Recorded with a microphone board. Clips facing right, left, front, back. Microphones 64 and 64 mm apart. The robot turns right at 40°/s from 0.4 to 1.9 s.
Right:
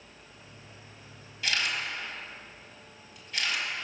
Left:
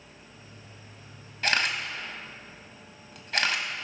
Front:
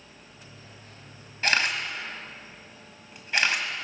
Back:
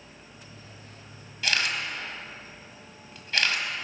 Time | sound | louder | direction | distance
1.4 | a camera shutter | left 4 dB, front 2 dB | 50° left | 1.2 m